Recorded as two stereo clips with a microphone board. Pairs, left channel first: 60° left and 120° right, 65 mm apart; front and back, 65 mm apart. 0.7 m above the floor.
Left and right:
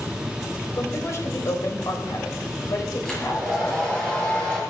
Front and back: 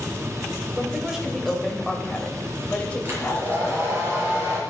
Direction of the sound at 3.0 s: 135° left.